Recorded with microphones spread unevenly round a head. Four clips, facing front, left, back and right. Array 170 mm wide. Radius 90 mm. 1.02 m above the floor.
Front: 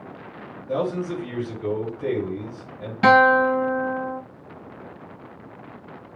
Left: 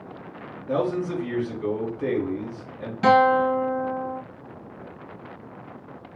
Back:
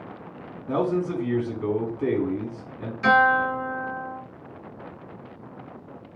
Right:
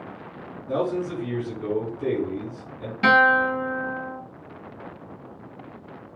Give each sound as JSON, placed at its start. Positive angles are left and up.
{"t": 0.7, "sound": "a man speaking", "azimuth_deg": 165, "distance_m": 2.0}
{"t": 3.0, "sound": "a guitar", "azimuth_deg": 0, "distance_m": 2.5}